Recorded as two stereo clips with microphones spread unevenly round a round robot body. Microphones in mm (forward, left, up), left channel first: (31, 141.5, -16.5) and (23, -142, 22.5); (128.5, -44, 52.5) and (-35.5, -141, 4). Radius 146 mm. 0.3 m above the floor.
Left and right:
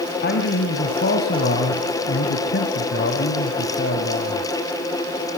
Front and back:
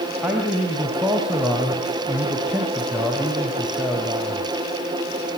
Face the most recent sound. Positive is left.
turn(degrees=135)